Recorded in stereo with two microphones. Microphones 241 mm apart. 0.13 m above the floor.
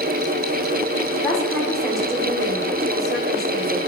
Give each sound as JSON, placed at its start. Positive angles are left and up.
{"t": 1.2, "sound": "a woman speaking", "side_deg": 0, "distance_m": 5.5}